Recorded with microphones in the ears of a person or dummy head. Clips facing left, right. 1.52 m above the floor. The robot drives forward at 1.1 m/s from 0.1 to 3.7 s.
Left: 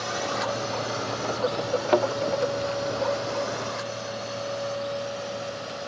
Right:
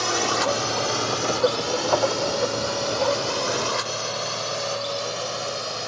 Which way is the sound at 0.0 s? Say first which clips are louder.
Right 5 dB; 60° right (ahead or behind).